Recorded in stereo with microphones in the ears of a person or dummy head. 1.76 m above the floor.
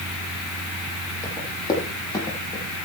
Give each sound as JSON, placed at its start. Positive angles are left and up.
{"t": 1.2, "sound": "running footsteps", "side_deg": 20, "distance_m": 8.5}